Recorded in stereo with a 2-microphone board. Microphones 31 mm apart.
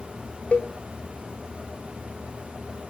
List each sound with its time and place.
0.5 s a cowbell: 45° left (ahead or behind), 0.6 m